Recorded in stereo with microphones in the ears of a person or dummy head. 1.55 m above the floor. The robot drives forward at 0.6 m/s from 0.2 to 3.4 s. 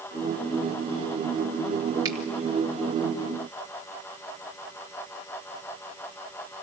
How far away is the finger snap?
About 4 m.